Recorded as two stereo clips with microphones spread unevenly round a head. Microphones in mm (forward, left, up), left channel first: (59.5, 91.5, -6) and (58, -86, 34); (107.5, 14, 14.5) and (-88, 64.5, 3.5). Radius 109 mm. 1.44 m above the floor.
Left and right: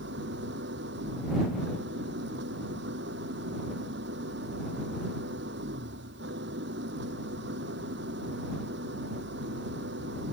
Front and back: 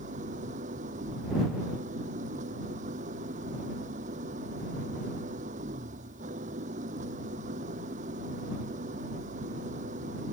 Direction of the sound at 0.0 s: 135° right.